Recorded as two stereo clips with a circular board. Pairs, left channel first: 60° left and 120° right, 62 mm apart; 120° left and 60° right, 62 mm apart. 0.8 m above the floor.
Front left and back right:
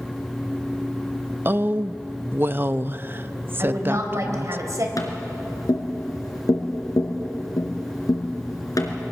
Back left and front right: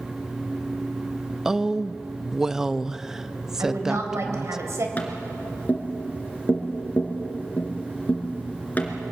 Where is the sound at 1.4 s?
135° right, 0.5 m.